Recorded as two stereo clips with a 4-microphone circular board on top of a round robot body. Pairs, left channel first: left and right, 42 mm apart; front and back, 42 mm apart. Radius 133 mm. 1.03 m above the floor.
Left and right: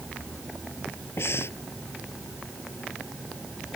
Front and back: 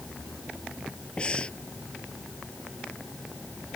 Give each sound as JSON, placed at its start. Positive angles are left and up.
{"t": 1.2, "sound": "breathing", "azimuth_deg": 65}